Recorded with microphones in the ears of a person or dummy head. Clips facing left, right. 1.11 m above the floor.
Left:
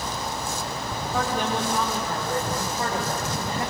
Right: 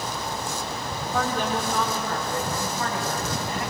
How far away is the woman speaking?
About 3 m.